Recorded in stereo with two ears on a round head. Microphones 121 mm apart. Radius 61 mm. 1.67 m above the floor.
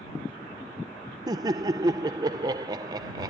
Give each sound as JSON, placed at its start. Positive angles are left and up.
{"t": 1.3, "sound": "laughter", "side_deg": -25}